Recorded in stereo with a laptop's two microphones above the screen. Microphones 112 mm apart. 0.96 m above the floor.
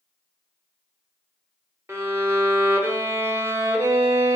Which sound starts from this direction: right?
A violin, at 1.9 s.